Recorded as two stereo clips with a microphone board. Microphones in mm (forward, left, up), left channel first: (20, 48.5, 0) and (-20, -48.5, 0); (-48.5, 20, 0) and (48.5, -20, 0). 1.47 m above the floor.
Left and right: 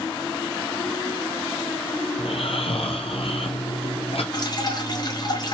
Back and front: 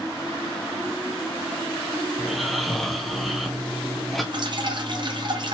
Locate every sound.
2.2 s snoring: 65° left, 0.7 m
4.3 s dripping: 20° left, 0.8 m